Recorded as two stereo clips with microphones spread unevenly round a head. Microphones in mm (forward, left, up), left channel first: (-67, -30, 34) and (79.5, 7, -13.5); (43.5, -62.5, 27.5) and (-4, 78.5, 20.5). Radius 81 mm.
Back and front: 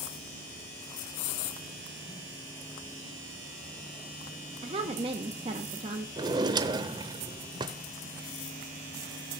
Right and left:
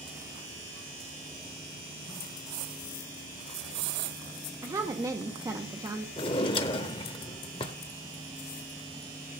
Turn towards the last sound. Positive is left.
turn(degrees=-55)